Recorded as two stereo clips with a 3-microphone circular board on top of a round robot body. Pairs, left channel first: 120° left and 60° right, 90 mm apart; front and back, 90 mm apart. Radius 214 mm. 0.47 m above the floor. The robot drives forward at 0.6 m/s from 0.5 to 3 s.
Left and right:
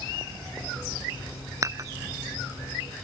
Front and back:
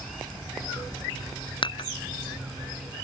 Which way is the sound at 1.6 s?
10° right.